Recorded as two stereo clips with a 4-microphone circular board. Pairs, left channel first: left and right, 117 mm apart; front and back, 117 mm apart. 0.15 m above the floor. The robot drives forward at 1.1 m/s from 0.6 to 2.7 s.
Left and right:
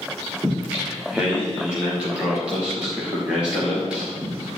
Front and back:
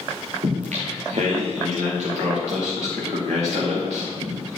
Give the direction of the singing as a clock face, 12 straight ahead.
6 o'clock.